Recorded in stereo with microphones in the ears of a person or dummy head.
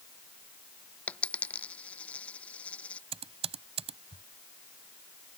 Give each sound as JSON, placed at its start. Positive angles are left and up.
{"t": 1.1, "sound": "a dropped coin", "side_deg": 10}
{"t": 3.1, "sound": "typing on a keyboard", "side_deg": -30}